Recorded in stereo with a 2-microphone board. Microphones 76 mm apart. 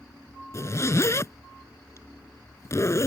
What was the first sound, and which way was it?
A zipper, 40° left (ahead or behind).